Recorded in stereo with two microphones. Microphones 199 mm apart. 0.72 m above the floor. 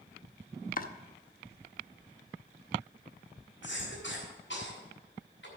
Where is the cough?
75° left (ahead or behind), 5 m.